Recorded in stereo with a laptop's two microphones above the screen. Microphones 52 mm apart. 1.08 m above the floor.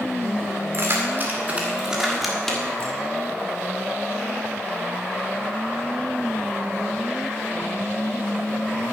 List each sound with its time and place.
0.7 s keys jangling: 50° right (ahead or behind), 2.5 m; by 2.9 s 25° left (ahead or behind), 2.0 m